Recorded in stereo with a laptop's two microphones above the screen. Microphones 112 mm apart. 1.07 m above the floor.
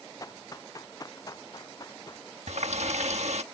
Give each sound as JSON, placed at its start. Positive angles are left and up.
{"t": 0.2, "sound": "running footsteps", "side_deg": 30}
{"t": 2.5, "sound": "a running tap", "side_deg": -80}